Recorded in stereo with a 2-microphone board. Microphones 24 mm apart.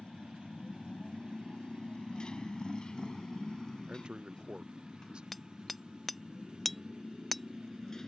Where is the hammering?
5° left (ahead or behind).